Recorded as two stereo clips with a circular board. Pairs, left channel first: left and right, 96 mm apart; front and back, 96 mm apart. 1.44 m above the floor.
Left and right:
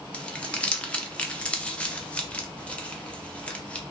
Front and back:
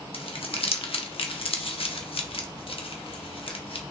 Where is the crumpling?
10° left, 0.7 m.